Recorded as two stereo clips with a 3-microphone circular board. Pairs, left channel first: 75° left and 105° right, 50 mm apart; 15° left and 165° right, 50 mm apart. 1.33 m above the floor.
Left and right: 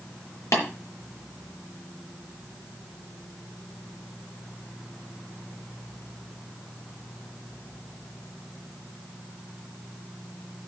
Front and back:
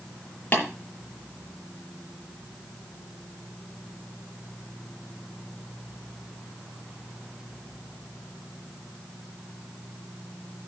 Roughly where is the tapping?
Ahead left.